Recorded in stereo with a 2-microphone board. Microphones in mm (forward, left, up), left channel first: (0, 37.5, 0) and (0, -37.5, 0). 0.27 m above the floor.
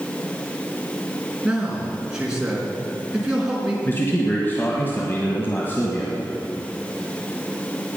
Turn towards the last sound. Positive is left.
turn(degrees=30)  # may be behind; listen again after turning